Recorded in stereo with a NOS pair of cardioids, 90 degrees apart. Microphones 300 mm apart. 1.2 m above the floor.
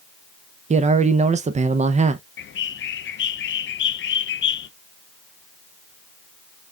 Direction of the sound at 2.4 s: 40° left.